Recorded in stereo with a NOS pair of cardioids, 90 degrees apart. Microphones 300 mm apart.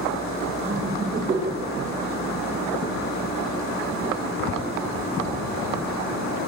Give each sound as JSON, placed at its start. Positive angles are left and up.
{"t": 0.7, "sound": "laughter", "azimuth_deg": -35, "distance_m": 6.5}